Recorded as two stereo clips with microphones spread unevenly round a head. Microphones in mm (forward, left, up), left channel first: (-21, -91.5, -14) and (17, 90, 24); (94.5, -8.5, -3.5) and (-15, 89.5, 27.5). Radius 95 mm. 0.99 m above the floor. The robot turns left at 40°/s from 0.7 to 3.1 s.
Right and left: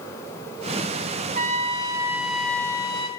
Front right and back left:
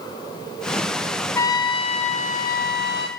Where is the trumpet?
35° left, 0.9 m; by 3.1 s 35° right, 0.9 m.